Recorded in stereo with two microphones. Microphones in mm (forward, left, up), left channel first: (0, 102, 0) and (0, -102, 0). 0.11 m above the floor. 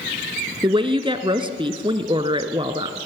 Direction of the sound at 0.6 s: 25° right (ahead or behind).